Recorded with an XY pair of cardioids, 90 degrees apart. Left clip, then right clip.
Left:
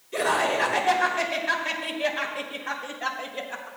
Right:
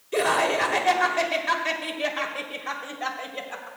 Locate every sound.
0.1 s laughter: 65° right, 3 m; by 3.7 s 25° right, 3.5 m